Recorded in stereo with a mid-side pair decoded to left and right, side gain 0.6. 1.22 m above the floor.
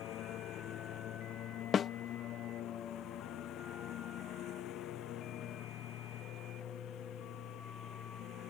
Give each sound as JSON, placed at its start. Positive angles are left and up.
{"t": 0.0, "sound": "a lawn mower", "azimuth_deg": 55}
{"t": 1.7, "sound": "a snare drum", "azimuth_deg": 35}